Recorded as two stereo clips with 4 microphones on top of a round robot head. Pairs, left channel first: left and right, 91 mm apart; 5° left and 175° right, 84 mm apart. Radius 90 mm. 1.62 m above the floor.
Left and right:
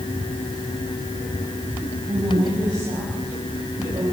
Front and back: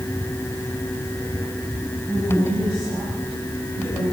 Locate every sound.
2.1 s a woman speaking: 60° right, 8.5 m; by 4.2 s 45° right, 7.5 m